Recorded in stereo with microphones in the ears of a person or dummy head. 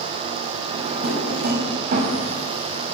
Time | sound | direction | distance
0.7 | a drawer | 55° right (ahead or behind) | 5.5 m